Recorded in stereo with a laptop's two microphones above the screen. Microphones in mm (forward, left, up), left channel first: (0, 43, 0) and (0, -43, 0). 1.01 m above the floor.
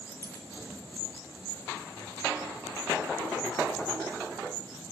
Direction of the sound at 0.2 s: 30° left (ahead or behind).